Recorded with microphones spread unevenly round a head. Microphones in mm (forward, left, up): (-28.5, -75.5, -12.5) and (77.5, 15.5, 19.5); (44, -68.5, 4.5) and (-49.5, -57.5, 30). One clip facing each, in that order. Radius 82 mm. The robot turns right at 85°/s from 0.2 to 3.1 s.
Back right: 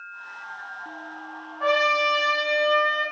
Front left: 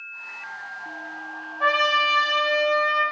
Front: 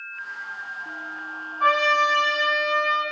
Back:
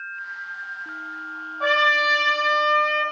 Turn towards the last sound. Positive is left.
turn(degrees=-135)